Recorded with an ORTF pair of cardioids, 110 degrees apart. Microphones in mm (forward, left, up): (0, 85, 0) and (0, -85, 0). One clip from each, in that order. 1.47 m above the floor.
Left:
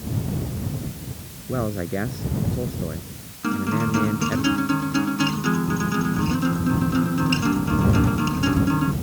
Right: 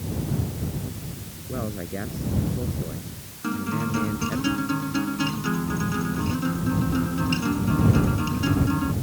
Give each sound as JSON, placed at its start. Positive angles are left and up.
{"t": 1.5, "sound": "a man speaking", "azimuth_deg": 35}
{"t": 3.4, "sound": "a guitar", "azimuth_deg": 20}